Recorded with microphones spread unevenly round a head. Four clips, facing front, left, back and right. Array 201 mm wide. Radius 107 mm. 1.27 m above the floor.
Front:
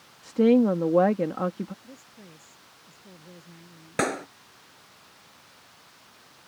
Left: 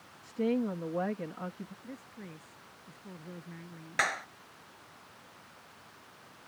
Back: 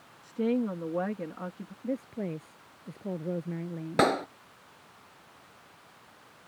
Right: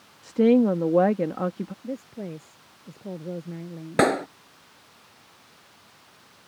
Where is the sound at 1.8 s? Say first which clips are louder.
Right 13 dB, back 15 dB; 140° right.